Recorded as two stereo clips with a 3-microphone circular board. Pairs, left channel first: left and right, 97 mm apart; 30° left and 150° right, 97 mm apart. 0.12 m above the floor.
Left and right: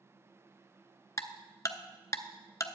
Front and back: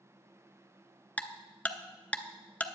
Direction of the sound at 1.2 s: 95° left.